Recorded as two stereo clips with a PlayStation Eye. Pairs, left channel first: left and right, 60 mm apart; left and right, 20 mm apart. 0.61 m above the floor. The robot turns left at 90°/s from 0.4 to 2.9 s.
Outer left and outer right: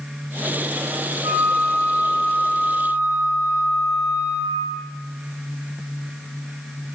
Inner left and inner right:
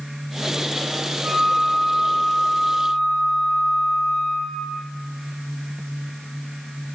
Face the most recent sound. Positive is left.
turn(degrees=70)